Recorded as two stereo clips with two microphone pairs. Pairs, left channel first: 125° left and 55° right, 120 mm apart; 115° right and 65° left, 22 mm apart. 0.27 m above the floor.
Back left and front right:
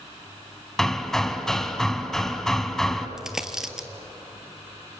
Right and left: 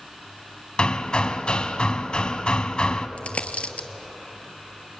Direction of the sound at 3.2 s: 140° right.